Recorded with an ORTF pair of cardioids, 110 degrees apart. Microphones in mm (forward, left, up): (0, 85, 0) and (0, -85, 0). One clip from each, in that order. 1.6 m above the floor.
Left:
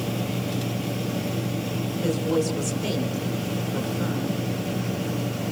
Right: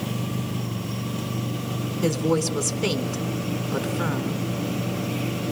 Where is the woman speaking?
65° right, 4.5 m.